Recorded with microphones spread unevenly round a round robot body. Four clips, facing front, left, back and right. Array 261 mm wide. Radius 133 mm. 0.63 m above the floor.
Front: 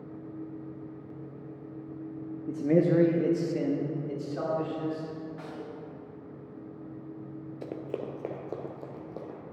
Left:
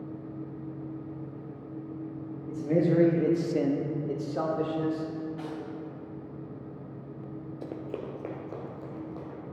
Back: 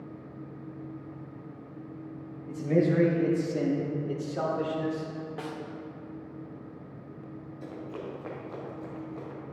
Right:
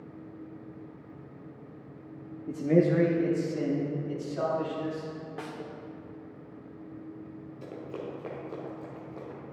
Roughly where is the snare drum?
Behind right.